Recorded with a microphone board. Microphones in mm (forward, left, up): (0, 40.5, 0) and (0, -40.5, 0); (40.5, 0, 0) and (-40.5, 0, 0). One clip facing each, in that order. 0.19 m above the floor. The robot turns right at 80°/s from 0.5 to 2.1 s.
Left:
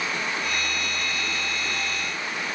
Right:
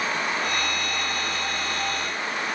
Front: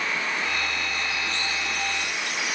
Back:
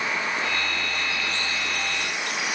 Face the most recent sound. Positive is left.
No sound to turn to.